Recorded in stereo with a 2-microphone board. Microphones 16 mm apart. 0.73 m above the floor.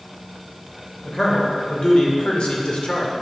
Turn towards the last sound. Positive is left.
turn(degrees=75)  # may be behind; listen again after turning